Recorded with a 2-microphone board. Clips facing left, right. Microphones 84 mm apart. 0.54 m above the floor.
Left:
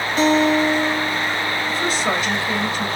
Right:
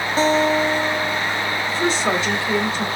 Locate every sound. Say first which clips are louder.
0.2 s a guitar: left 1 dB; 35° right (ahead or behind), 0.5 m
1.7 s a woman speaking: right 3 dB; 30° right (ahead or behind), 1.9 m